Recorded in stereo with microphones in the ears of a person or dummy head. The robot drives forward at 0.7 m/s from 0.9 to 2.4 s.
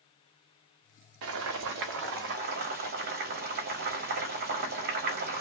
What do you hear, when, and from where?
1.2 s boiling: 65° right (ahead or behind), 0.9 m; by 5.4 s 45° right (ahead or behind), 1.1 m